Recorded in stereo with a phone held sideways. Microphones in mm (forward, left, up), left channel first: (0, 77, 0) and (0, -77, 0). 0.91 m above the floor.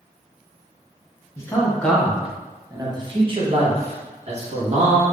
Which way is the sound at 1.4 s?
20° left (ahead or behind).